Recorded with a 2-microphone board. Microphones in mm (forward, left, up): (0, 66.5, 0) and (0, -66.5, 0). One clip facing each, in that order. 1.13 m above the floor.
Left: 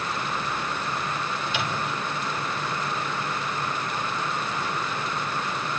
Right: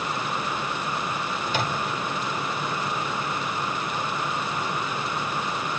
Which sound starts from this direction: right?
A microwave, at 1.5 s.